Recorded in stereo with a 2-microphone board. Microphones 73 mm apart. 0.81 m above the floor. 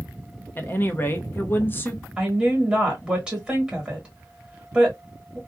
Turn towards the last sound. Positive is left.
turn(degrees=-15)  # may be behind; listen again after turning